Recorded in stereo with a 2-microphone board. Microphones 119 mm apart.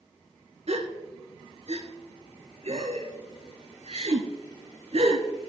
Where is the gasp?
60° right (ahead or behind), 0.9 m.